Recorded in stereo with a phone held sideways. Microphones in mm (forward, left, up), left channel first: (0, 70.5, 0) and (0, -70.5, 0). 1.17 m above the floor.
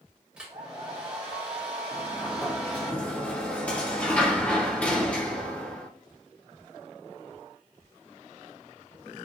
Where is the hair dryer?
5° right (ahead or behind), 2 m.